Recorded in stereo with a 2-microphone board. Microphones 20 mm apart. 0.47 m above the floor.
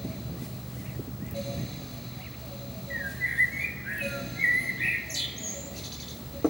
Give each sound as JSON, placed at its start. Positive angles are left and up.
{"t": 2.9, "sound": "a bird", "side_deg": 5, "distance_m": 0.8}